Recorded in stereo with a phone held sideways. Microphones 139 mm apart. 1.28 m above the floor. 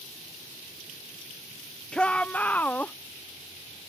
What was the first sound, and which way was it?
A shout, 5° left (ahead or behind).